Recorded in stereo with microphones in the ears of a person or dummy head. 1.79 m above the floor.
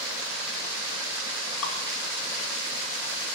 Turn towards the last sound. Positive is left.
turn(degrees=80)